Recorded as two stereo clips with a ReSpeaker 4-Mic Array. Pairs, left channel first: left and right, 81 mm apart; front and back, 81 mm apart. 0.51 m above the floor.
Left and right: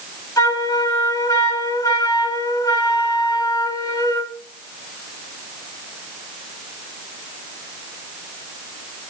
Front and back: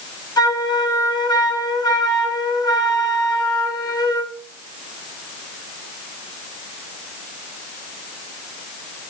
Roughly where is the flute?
Ahead left.